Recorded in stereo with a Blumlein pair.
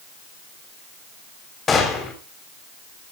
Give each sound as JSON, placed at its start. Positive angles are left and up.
{"t": 1.7, "sound": "a gunshot", "azimuth_deg": 20, "distance_m": 3.5}